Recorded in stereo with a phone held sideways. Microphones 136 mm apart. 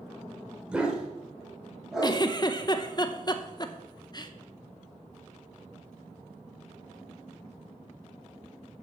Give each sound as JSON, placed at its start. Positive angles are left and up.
{"t": 0.7, "sound": "a dog barking", "side_deg": -10, "distance_m": 1.5}
{"t": 2.0, "sound": "a giggle", "side_deg": 30, "distance_m": 0.6}